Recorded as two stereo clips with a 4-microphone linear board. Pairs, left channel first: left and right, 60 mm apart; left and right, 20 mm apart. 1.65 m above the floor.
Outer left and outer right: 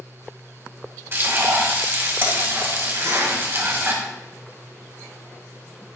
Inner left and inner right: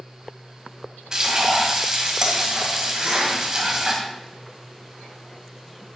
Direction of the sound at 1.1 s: 40° right (ahead or behind).